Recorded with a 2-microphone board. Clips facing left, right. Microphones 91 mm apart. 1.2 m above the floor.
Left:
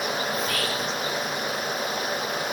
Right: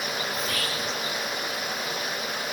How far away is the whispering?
About 0.5 m.